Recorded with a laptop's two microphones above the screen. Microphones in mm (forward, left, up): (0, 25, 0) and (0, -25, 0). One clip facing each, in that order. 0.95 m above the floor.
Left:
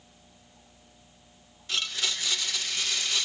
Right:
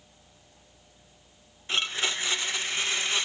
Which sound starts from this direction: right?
A blender, at 1.7 s.